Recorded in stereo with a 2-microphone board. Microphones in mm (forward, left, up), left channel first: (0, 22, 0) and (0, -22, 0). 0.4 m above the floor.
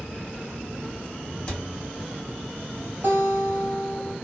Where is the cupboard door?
20° left (ahead or behind), 1.1 m.